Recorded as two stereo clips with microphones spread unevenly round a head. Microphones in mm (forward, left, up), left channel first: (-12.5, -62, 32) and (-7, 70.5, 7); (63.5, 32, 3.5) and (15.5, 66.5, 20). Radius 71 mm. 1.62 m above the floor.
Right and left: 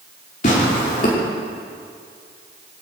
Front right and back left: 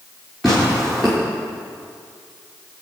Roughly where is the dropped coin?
I don't hear a dropped coin.